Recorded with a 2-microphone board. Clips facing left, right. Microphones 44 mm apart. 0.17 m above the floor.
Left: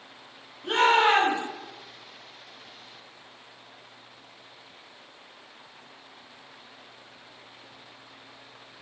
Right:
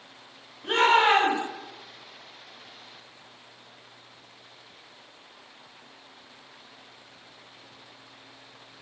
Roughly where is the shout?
Centre.